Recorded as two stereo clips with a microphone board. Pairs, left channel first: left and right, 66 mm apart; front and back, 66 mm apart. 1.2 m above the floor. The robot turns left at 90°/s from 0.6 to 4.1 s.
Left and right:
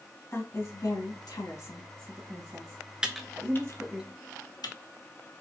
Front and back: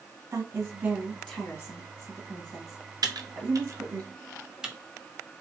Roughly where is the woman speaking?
Behind left.